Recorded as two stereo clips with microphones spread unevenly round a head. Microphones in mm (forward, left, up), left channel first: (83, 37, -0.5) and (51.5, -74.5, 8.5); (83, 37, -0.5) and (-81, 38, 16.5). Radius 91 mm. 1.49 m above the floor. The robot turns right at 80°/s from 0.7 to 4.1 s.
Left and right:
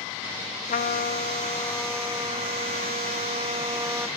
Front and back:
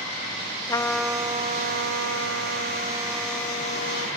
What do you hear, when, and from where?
0.7 s a trumpet: 65° left, 0.8 m; by 4.1 s 25° right, 0.8 m